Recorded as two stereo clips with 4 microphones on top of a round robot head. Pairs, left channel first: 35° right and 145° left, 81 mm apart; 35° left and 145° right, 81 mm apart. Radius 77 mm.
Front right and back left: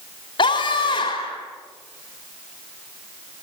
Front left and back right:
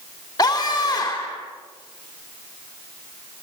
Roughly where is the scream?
Ahead.